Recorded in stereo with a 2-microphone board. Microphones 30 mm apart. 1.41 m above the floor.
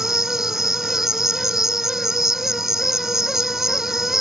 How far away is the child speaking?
I don't hear a child speaking.